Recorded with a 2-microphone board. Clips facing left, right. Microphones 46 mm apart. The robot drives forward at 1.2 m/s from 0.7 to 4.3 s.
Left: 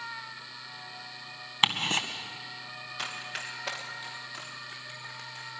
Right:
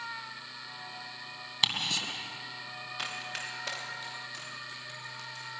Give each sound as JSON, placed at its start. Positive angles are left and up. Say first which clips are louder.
{"t": 1.6, "sound": "ticking", "louder": "left 5 dB", "side_deg": 35, "distance_m": 1.9}
{"t": 3.0, "sound": "running footsteps", "louder": "left 1 dB", "side_deg": -5, "distance_m": 4.0}